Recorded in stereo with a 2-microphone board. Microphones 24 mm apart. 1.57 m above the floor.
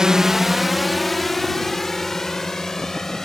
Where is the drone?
30° right (ahead or behind); by 3.2 s 20° left (ahead or behind).